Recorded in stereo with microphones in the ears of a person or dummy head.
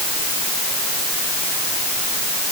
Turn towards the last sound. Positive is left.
No sound to turn to.